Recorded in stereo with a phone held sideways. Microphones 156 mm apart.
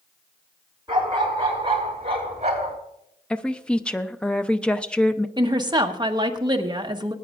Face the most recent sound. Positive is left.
turn(degrees=-30)  # may be behind; listen again after turning